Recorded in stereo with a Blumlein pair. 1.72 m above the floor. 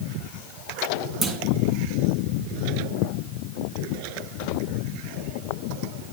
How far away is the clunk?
About 1.2 m.